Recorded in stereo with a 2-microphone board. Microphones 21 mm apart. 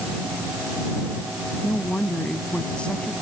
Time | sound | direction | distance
1.6 | a woman speaking | 55° left (ahead or behind) | ?